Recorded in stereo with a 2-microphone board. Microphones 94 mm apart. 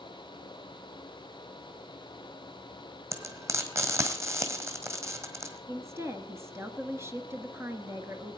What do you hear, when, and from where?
3.1 s frying: 30° right (ahead or behind), 1.9 m
5.7 s a woman speaking: 25° right (ahead or behind), 1.5 m